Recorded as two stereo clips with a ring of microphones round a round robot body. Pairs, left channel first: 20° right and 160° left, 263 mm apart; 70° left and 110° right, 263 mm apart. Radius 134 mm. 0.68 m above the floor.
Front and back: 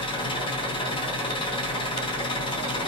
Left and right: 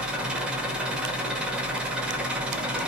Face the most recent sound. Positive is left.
turn(degrees=-35)